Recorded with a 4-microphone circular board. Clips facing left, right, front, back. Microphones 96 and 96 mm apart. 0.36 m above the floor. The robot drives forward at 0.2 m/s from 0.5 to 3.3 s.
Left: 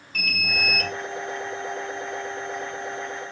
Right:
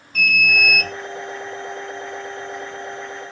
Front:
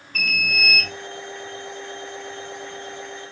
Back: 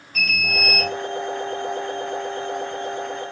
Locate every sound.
0.1 s an alarm: 105° right, 1.7 m; by 0.9 s 110° right, 1.7 m